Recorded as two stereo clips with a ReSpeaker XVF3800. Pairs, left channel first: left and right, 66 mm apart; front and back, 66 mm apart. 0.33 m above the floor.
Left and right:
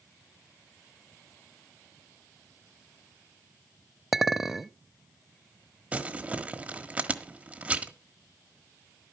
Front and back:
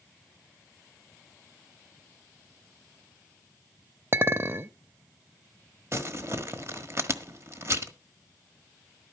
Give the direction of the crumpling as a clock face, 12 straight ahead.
5 o'clock.